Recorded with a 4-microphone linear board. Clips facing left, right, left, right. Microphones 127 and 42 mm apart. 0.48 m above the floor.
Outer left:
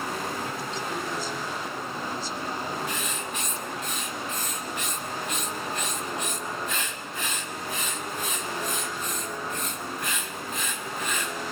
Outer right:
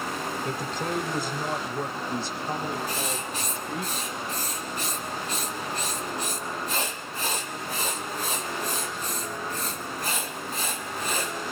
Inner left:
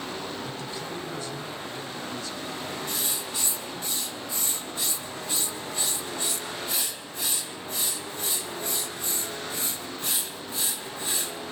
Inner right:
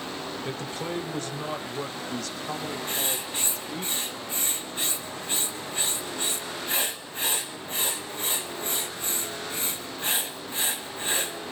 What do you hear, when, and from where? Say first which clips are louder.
0.4 s a man speaking: outer right 2 dB, inner right 2 dB; 50° right (ahead or behind), 2 m; by 3.9 s 65° right (ahead or behind), 2.5 m
2.9 s writing: outer right 1 dB, inner right 2 dB; 35° right (ahead or behind), 2.5 m